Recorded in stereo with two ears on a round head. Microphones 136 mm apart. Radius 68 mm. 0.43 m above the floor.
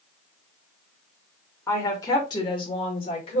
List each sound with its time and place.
1.7 s a woman speaking: 20° left (ahead or behind), 1.5 m; by 3.4 s 40° left (ahead or behind), 1.5 m